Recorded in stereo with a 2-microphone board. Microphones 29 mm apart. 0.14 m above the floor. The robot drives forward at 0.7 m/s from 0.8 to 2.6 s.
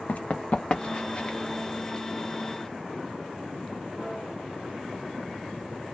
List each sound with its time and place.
0.1 s running footsteps: 55° left (ahead or behind), 0.5 m; by 1.4 s 30° left (ahead or behind), 0.7 m